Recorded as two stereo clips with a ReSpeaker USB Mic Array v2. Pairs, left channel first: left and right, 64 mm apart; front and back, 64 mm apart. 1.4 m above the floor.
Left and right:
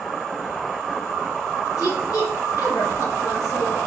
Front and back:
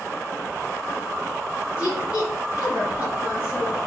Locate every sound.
1.8 s a woman speaking: 120° left, 2 m